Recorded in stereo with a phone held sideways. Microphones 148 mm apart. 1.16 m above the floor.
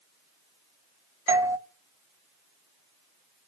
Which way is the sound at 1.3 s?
20° right (ahead or behind).